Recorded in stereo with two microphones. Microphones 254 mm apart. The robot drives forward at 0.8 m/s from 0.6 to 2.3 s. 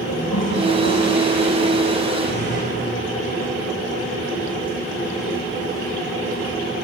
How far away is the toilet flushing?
About 7 m.